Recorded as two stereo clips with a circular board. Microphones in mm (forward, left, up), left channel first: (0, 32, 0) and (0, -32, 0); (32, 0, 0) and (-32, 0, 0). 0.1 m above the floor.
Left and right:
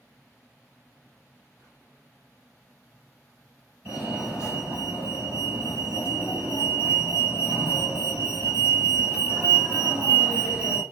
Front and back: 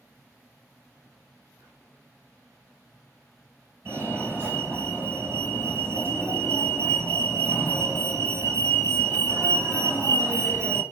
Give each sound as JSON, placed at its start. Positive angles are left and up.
{"t": 1.6, "sound": "whispering", "azimuth_deg": 145, "distance_m": 3.5}
{"t": 3.9, "sound": "a fire alarm", "azimuth_deg": -155, "distance_m": 2.5}